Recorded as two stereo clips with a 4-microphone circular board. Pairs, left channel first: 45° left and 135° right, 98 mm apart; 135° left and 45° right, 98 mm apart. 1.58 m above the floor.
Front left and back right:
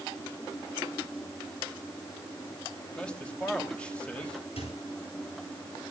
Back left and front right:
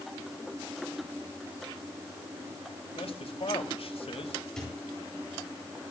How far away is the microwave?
About 9 m.